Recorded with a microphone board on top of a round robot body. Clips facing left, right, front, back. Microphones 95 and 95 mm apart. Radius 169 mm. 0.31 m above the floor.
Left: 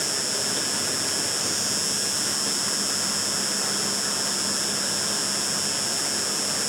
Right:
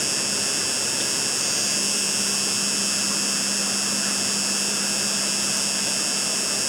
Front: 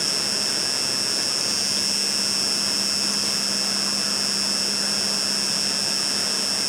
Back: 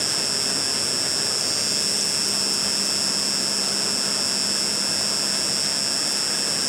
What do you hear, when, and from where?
0.0 s an insect: 95° right